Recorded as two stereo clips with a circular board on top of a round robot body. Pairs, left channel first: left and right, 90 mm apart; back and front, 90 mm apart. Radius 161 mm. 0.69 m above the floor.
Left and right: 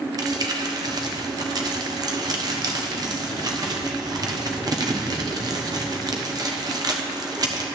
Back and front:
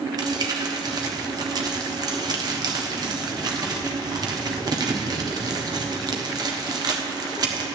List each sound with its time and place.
0.2 s crumpling: 45° right, 1.2 m